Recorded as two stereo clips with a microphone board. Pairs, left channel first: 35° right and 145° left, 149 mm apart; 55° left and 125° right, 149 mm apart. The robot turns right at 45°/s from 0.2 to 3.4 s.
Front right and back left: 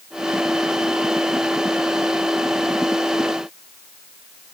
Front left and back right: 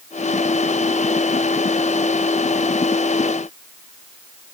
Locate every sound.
Only background noise.